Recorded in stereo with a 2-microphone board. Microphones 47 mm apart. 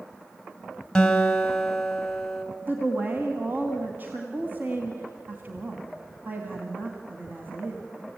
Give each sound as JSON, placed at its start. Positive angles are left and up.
{"t": 0.9, "sound": "a guitar", "side_deg": 15, "distance_m": 1.8}
{"t": 2.7, "sound": "a woman speaking", "side_deg": -40, "distance_m": 2.0}